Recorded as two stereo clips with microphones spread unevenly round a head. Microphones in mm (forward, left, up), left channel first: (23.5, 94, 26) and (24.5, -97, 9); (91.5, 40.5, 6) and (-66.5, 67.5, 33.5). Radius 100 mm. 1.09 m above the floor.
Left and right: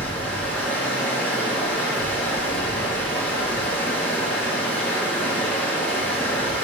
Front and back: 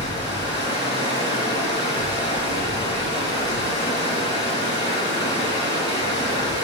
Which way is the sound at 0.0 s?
10° left.